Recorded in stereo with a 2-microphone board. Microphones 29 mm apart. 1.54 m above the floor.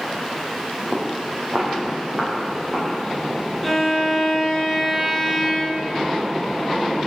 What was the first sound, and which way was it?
Footsteps, 40° right (ahead or behind).